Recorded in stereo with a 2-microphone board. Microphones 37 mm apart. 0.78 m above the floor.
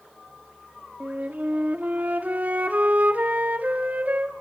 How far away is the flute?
About 1.9 m.